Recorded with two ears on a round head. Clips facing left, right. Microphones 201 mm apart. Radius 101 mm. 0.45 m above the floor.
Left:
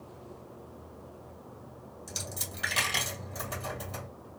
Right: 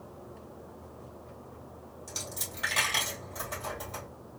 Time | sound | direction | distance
2.1 | a dropped coin | 10° left (ahead or behind) | 1.8 m